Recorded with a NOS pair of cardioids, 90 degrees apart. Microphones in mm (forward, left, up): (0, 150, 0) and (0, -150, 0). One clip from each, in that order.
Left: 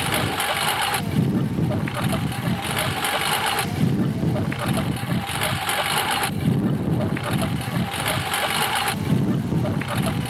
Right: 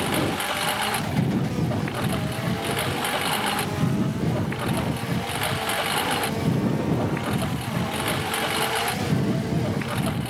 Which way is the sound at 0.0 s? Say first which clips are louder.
Left 2 dB; 60° left.